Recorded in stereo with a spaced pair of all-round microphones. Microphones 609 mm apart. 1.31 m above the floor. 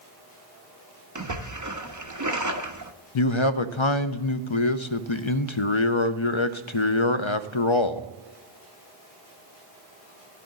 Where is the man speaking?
55° left (ahead or behind), 0.5 m.